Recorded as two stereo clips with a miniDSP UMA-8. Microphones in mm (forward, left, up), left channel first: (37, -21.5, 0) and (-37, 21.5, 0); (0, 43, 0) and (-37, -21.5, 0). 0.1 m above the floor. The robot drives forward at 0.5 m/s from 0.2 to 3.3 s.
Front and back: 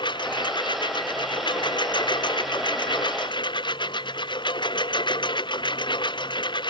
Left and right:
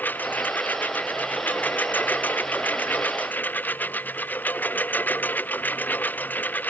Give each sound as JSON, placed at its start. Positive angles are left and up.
{"t": 0.0, "sound": "a lawn mower", "azimuth_deg": -5}